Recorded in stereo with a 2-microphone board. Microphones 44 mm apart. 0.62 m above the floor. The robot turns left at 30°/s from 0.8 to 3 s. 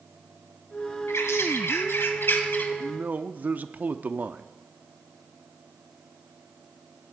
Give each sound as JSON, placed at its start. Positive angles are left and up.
{"t": 1.1, "sound": "a bird", "azimuth_deg": 90, "distance_m": 1.8}
{"t": 2.8, "sound": "a man speaking", "side_deg": -40, "distance_m": 0.6}